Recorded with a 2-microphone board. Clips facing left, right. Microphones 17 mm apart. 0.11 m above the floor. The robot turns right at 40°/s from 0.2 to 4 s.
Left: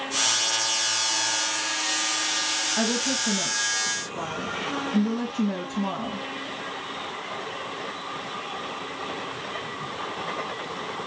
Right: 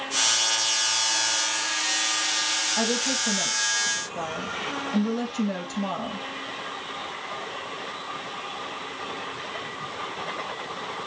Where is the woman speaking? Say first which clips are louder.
Even; 165° right, 4 m; by 6.2 s 115° right, 4 m.